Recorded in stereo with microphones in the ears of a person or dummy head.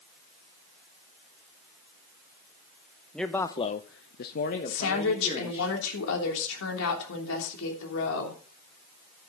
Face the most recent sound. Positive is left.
turn(degrees=80)